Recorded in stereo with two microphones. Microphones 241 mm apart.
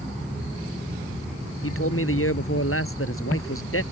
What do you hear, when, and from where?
1.6 s a man speaking: 65° left (ahead or behind)